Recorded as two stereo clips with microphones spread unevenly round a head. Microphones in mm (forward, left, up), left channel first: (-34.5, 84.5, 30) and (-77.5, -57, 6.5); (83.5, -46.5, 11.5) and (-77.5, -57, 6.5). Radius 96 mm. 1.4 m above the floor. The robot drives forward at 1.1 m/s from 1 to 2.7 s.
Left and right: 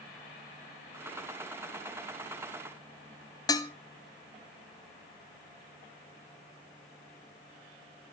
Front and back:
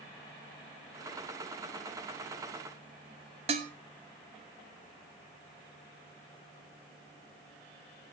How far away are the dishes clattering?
About 0.9 m.